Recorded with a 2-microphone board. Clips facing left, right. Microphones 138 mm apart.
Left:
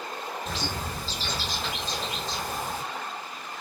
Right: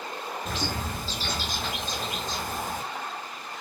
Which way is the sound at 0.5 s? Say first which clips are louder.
Right 3 dB; 50° right (ahead or behind).